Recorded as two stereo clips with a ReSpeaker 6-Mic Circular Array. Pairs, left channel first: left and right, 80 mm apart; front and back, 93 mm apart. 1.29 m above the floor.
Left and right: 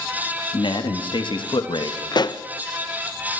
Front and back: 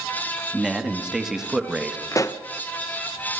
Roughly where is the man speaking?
Left.